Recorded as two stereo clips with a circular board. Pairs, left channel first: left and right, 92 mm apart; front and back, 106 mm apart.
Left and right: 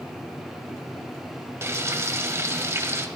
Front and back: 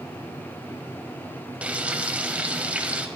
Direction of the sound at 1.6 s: 115° right.